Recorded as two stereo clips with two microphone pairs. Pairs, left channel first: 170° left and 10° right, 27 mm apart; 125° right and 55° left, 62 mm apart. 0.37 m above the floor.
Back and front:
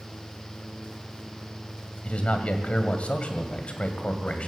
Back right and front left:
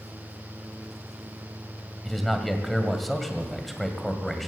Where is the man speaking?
150° left, 2 m.